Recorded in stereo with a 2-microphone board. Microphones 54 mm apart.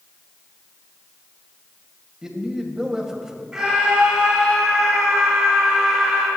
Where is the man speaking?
15° right (ahead or behind), 1.7 m.